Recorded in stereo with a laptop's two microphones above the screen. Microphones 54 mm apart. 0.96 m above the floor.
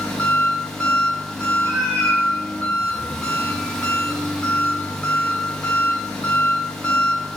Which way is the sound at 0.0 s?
15° left (ahead or behind).